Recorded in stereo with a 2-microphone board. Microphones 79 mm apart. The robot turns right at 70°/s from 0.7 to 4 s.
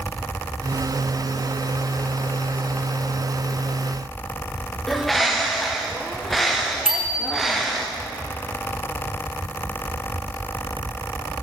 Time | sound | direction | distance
4.9 | a bird | 5° left (ahead or behind) | 3.5 m
6.8 | a bicycle bell | 5° right (ahead or behind) | 6 m